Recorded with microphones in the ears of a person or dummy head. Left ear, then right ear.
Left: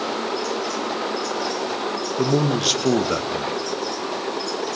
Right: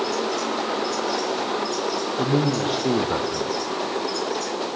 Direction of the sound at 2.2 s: 85° left.